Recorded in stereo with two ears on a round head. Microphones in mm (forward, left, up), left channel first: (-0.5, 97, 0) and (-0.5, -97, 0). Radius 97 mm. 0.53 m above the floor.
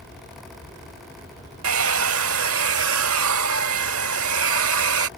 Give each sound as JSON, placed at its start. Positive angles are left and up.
{"t": 1.6, "sound": "a hair dryer", "side_deg": -70}